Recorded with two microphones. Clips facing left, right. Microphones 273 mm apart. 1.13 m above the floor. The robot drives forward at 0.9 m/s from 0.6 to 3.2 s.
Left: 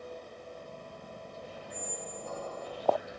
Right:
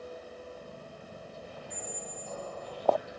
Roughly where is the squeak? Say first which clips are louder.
Left 3 dB; left.